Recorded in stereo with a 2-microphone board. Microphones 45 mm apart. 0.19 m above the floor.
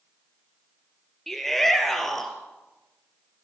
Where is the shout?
10° left (ahead or behind), 3.5 m.